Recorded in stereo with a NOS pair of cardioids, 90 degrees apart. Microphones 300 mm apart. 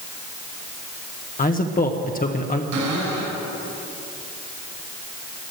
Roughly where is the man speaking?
Ahead left.